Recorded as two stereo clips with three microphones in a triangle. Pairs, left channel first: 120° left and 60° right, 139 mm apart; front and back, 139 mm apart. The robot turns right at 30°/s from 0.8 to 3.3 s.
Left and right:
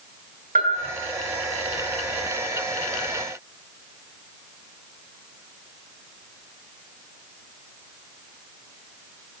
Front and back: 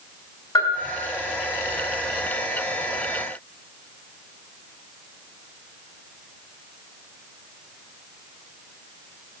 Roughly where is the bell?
Ahead right.